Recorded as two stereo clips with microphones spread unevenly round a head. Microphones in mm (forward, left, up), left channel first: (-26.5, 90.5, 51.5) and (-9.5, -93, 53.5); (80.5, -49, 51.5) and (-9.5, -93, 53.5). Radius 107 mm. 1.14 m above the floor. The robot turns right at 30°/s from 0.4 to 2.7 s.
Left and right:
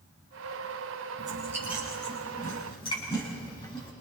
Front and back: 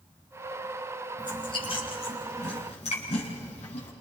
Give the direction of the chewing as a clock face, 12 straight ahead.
1 o'clock.